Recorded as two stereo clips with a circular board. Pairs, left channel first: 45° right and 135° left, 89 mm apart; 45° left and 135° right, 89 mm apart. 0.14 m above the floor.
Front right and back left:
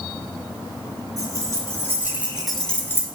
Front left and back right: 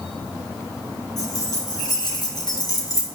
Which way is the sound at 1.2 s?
90° left.